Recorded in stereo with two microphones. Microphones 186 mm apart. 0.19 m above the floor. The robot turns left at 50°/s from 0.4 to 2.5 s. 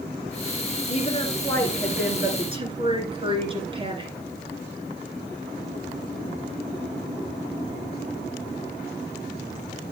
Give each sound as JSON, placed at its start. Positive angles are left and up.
{"t": 0.9, "sound": "a woman speaking", "azimuth_deg": 45, "distance_m": 2.5}